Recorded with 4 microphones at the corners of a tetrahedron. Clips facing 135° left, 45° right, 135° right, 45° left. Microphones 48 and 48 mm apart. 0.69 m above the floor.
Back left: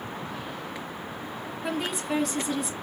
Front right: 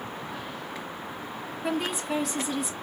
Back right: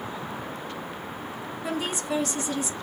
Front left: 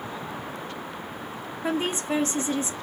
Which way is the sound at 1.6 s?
50° left.